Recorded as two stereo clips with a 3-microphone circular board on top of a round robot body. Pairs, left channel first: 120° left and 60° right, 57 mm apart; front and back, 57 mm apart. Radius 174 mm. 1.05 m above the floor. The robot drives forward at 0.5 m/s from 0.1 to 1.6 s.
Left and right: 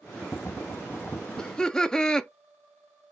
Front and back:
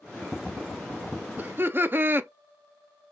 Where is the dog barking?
I don't hear a dog barking.